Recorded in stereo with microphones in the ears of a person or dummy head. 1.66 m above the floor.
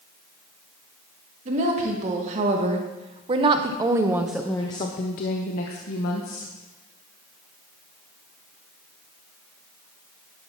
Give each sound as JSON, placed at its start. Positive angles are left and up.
{"t": 1.4, "sound": "a woman speaking", "side_deg": -45, "distance_m": 2.5}